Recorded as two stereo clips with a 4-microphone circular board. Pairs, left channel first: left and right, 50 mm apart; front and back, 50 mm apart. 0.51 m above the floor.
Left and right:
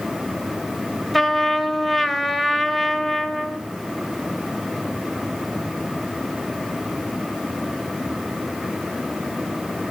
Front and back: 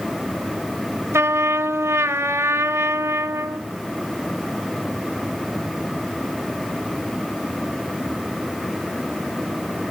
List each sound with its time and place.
1.1 s a trumpet: 175° right, 1.1 m